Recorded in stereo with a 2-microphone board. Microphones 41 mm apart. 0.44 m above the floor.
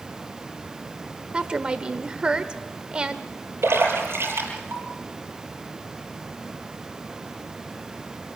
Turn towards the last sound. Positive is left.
turn(degrees=-80)